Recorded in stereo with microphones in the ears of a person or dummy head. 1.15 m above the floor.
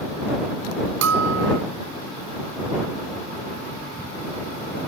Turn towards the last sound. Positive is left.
turn(degrees=-80)